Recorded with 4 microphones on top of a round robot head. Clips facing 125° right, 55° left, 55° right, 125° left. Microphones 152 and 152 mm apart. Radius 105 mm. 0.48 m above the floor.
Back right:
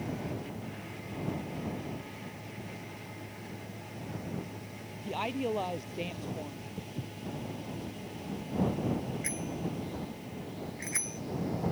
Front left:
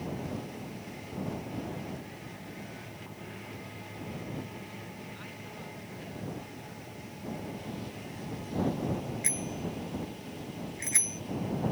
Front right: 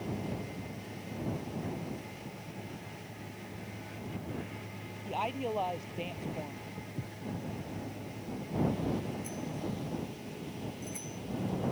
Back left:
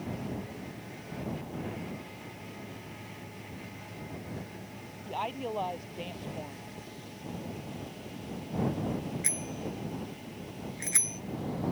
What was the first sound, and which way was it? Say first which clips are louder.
A woman speaking: back right 13 dB, front right 1 dB; 140° right.